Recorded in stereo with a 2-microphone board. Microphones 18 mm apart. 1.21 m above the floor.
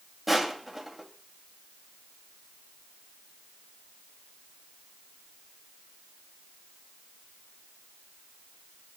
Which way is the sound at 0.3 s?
10° right (ahead or behind).